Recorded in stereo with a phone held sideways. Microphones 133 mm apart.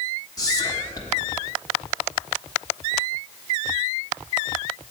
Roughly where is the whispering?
Left.